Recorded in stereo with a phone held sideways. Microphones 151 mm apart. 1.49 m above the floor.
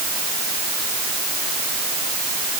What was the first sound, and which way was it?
Only background noise.